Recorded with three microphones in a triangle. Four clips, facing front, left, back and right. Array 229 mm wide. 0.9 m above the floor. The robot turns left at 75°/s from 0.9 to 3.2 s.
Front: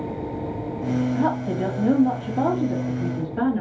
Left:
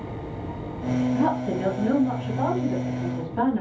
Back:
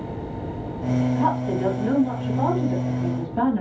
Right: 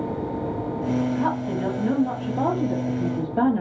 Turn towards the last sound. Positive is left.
turn(degrees=-95)